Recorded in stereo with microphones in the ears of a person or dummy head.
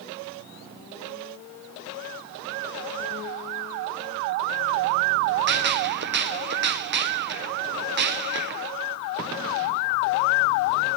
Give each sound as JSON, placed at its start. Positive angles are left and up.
{"t": 5.5, "sound": "a gunshot", "side_deg": -50, "distance_m": 0.6}